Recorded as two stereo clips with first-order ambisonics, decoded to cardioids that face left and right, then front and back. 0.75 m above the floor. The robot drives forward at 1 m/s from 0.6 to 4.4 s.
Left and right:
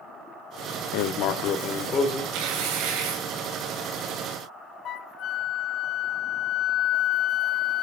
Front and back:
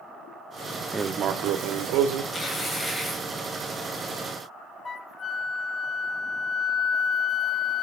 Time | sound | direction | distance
0.9 | writing | 95° left | 0.6 m
2.3 | tearing paper | 70° right | 2.5 m
4.8 | a flute | 60° left | 0.6 m